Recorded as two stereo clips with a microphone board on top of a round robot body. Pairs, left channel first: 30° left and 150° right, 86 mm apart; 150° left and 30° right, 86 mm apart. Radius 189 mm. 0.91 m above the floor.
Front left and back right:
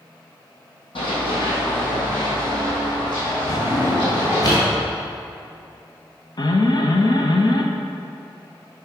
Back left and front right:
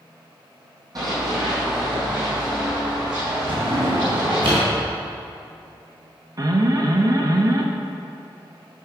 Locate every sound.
0.9 s running footsteps: 15° left, 3 m; by 4.5 s 10° right, 5 m
3.5 s a drawer: 10° right, 3.5 m
6.4 s an alarm: 10° left, 1.1 m